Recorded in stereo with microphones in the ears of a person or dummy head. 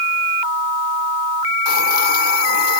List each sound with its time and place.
1.6 s a hiss: 55° left (ahead or behind), 1.6 m